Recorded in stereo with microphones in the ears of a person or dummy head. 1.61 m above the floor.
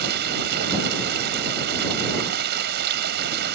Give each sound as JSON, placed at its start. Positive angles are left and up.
{"t": 0.0, "sound": "running water", "side_deg": -65}